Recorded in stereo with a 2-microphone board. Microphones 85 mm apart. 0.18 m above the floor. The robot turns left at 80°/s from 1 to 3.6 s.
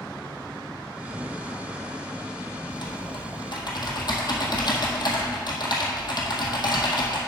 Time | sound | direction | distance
2.7 | typing on a keyboard | 125° left | 1.6 m